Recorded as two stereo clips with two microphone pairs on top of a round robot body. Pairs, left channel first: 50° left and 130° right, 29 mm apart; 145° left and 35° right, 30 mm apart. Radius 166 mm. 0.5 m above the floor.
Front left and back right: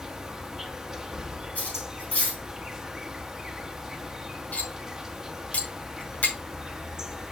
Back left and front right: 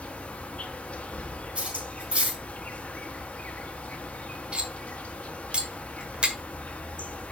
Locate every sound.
0.0 s an insect: 170° left, 1.3 m
1.6 s cutlery clinking: 15° left, 4 m
4.5 s cutlery clinking: 20° left, 1.4 m